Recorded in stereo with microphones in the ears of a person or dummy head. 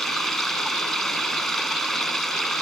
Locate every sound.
0.0 s running water: 5° left (ahead or behind)